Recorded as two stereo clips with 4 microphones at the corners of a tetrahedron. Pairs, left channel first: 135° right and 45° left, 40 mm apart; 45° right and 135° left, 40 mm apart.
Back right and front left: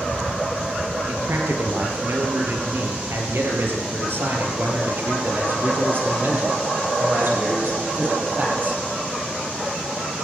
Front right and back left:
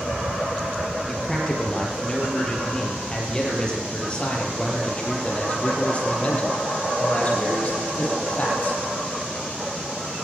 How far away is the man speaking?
About 7 m.